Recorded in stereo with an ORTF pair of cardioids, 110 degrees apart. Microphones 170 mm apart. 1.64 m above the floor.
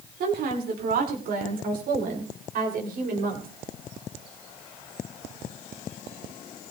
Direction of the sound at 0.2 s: 60° right.